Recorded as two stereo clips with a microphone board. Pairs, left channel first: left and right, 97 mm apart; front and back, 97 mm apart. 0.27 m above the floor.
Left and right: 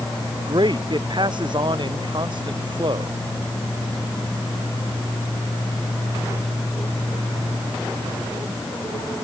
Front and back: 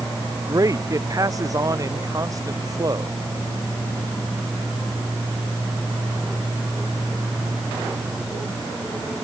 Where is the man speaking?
125° right.